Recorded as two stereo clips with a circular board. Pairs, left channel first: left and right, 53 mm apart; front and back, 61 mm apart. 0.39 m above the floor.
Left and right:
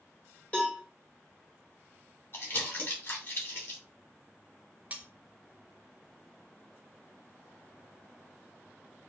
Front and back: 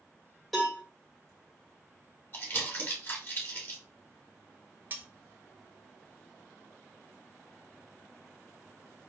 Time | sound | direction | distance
0.5 | a cowbell | 80° left | 1.1 m
2.3 | crumpling | 45° left | 1.2 m
4.9 | cutlery clinking | 140° right | 0.5 m